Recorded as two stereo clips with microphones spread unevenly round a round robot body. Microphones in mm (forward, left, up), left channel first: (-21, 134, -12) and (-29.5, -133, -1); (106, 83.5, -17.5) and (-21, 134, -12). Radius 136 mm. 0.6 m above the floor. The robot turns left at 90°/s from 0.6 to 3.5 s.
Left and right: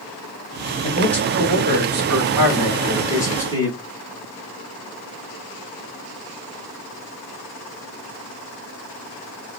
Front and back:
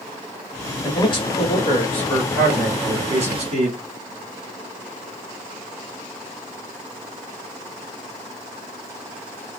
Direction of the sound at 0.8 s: 35° left.